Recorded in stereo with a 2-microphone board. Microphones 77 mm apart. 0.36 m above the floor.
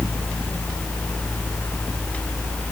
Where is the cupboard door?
No cupboard door in this recording.